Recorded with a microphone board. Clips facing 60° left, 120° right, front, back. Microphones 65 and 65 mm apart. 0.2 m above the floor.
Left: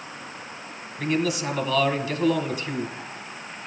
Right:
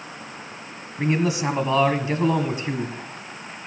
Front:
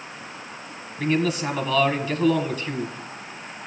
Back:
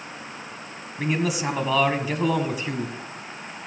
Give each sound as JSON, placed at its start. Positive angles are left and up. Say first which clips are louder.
{"t": 1.0, "sound": "a man speaking", "louder": "right 2 dB, front 2 dB", "azimuth_deg": -115, "distance_m": 1.6}